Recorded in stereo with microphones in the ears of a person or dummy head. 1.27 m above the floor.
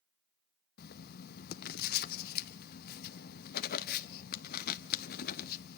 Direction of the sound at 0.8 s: 55° left (ahead or behind).